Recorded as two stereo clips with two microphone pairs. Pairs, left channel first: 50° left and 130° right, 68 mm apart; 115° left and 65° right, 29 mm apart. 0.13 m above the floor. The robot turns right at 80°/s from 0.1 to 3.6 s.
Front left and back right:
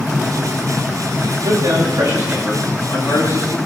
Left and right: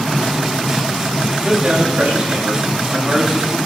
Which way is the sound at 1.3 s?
145° right.